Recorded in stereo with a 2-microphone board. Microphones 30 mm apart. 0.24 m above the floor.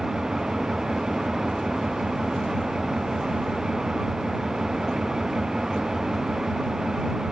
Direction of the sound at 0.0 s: 25° right (ahead or behind).